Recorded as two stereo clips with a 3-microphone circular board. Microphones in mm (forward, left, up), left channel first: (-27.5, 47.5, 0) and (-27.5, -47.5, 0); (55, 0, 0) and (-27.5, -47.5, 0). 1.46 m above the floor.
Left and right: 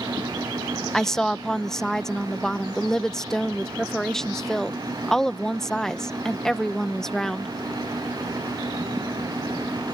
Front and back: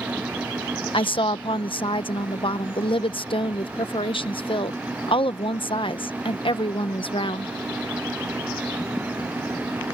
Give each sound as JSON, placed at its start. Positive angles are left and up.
{"t": 0.9, "sound": "a woman speaking", "azimuth_deg": 5}